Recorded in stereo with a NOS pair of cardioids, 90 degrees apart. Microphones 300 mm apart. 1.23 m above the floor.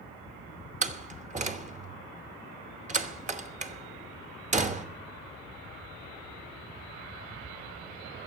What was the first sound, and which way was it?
A door slam, 25° right.